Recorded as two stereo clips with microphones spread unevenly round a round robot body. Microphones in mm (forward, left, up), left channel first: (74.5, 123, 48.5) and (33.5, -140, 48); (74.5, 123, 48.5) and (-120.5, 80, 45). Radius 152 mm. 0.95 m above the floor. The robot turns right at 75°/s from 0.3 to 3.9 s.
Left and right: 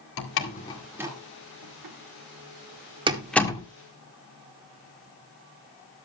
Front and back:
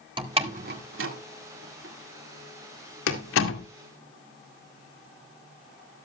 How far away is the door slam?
About 2.0 m.